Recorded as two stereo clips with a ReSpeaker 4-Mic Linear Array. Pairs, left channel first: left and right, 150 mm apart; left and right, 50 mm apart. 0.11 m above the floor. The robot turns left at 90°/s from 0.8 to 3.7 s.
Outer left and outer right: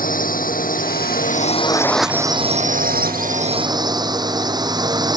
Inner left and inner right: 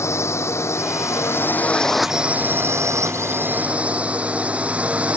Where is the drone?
110° left; by 5.2 s 150° right.